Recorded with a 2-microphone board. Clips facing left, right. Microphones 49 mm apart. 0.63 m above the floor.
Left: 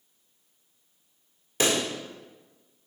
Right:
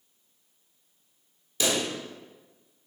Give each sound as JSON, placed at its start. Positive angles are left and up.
{"t": 1.6, "sound": "a pop", "side_deg": 45, "distance_m": 1.1}